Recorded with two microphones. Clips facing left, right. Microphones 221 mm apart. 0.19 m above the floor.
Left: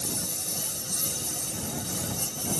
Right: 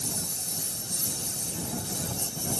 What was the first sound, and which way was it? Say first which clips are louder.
A lawn mower: left 2 dB; 70° left (ahead or behind).